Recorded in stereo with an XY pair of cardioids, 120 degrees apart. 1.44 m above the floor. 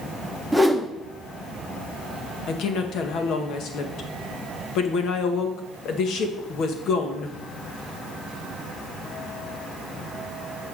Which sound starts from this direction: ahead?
A whoosh, at 0.5 s.